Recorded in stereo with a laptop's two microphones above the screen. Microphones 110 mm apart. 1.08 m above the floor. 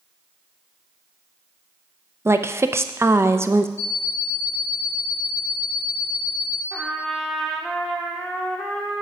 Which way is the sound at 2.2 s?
25° right (ahead or behind).